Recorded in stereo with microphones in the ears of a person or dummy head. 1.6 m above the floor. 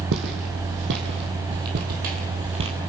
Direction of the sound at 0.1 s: 65° right (ahead or behind).